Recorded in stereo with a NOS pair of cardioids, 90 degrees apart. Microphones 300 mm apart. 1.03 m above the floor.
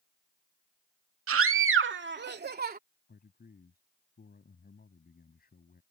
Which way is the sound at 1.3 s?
50° right.